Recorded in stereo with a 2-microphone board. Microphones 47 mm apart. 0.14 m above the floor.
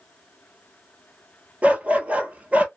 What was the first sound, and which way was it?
A dog barking, 30° right (ahead or behind).